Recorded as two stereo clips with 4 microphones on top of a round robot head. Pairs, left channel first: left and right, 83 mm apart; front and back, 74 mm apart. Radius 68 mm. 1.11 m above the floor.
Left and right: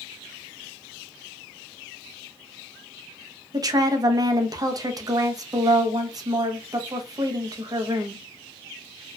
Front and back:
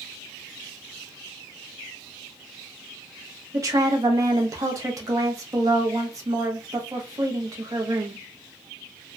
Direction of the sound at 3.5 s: 135° right.